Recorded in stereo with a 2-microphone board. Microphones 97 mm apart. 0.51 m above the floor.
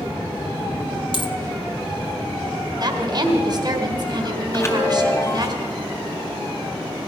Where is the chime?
25° left (ahead or behind), 1.5 m.